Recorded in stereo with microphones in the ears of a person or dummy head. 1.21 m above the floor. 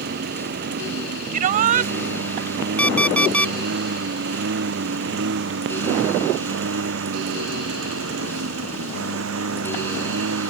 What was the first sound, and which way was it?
A lawn mower, 55° right (ahead or behind).